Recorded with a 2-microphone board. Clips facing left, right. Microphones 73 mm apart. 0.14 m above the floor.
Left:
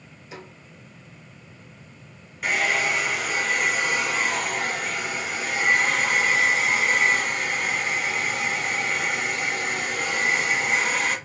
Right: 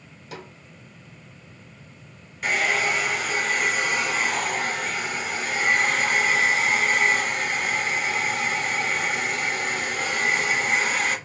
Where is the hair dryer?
Centre (ahead or behind), 1.6 m.